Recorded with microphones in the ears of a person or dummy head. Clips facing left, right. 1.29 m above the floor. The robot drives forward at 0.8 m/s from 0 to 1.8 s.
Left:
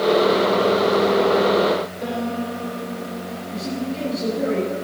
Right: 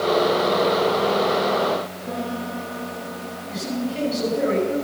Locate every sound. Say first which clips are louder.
2.0 s a piano: left 3 dB; 80° left, 4.5 m
3.5 s a man speaking: right 1 dB; 65° right (ahead or behind), 8 m